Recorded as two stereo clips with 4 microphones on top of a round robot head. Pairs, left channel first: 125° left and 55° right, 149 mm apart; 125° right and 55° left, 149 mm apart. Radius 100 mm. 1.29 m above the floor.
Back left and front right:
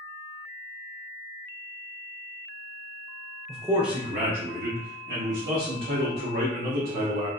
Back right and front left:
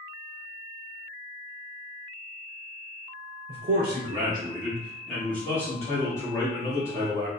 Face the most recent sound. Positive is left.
turn(degrees=-65)